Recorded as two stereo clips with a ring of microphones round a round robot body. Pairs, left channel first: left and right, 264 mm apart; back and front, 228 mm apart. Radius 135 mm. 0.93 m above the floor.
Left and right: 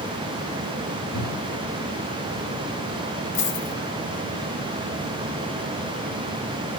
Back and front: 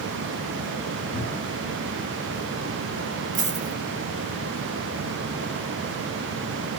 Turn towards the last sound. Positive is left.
turn(degrees=55)